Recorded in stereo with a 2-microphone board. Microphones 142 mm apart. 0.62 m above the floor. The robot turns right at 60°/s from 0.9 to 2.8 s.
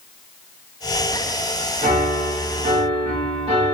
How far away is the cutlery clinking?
I don't hear cutlery clinking.